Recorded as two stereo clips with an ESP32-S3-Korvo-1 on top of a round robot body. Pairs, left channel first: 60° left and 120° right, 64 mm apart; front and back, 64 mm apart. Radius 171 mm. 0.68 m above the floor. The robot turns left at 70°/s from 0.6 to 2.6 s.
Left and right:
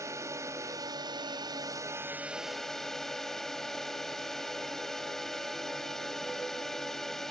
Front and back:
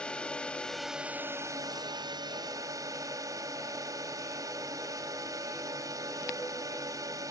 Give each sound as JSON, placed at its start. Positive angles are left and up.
{"t": 0.0, "sound": "a drone", "azimuth_deg": -75}